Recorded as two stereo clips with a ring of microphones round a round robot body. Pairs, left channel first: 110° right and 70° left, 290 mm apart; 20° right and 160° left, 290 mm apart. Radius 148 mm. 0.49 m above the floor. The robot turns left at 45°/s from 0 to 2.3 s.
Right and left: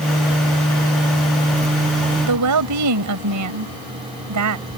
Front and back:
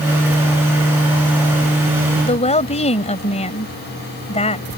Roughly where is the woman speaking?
Ahead left.